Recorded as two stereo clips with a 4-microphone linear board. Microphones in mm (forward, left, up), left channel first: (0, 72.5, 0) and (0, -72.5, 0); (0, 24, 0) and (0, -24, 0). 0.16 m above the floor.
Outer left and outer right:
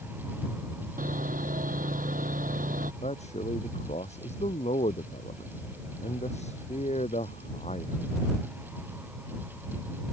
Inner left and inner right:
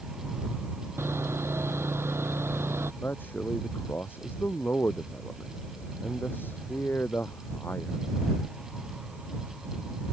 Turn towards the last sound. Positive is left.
turn(degrees=50)  # may be behind; listen again after turning